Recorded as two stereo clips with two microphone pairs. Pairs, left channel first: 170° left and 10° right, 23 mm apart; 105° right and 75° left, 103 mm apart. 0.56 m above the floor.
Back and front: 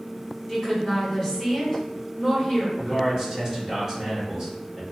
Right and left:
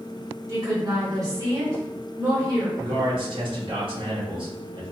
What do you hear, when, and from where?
0.5 s a woman speaking: 110° left, 1.6 m
2.8 s a man speaking: 55° left, 1.2 m